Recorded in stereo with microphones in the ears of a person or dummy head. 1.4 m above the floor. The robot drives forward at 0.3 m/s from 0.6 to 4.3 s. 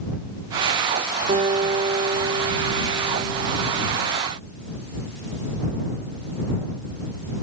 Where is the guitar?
35° right (ahead or behind), 2.5 m; by 3.9 s 50° right (ahead or behind), 2 m.